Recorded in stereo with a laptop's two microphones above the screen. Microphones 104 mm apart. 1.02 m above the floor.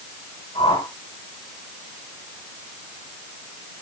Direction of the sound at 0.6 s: 60° left (ahead or behind).